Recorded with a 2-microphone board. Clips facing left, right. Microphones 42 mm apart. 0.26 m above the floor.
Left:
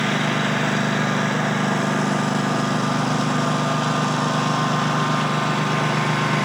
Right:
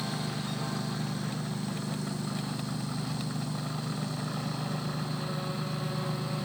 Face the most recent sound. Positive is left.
turn(degrees=90)